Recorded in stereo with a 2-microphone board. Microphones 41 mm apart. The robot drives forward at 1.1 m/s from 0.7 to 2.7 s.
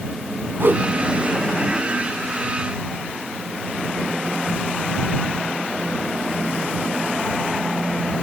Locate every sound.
0.6 s a whoosh: 65° right (ahead or behind), 1.0 m; by 0.8 s 60° right (ahead or behind), 1.1 m